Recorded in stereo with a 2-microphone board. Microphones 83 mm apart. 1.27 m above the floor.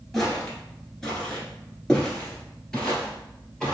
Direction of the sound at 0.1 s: 5° left (ahead or behind).